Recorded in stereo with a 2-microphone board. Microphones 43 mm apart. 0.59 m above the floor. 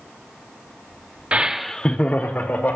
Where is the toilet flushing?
No toilet flushing in this recording.